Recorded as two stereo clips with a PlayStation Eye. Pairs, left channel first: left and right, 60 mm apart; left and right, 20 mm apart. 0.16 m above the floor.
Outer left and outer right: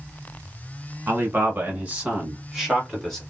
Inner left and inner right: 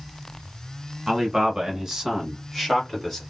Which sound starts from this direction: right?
A man speaking, at 1.1 s.